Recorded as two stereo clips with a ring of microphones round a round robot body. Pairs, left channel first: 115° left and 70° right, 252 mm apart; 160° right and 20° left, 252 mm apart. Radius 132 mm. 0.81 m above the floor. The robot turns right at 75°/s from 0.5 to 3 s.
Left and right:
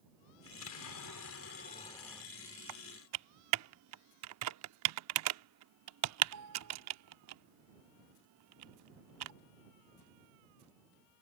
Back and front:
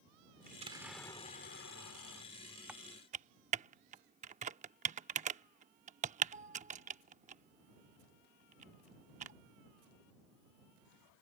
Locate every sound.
0.5 s an explosion: 80° left; by 2.2 s 150° right
2.7 s typing on a keyboard: 65° right; by 9.3 s 40° right